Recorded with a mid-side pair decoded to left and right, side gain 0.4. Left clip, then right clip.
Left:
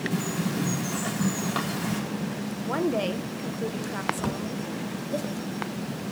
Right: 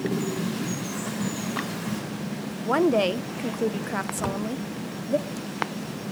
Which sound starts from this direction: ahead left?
A bird, at 0.1 s.